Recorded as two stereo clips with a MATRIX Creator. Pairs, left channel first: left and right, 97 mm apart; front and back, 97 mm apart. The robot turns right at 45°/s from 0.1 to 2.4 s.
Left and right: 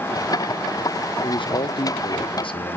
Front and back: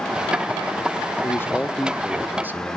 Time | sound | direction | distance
1.2 | a man speaking | 55° left | 1.2 m